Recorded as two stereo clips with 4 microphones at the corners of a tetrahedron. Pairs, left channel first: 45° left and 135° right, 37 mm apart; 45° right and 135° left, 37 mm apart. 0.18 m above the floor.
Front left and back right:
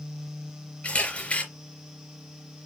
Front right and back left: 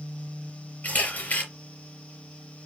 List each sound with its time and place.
0.8 s a camera shutter: 10° right, 4 m